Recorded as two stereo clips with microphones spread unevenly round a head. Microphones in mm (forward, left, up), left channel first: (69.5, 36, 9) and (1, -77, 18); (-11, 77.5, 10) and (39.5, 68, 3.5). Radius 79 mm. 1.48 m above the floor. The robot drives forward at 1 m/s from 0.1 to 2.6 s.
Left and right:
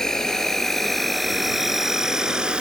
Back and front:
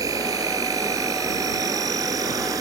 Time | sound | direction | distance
0.0 | an insect | 30° right | ?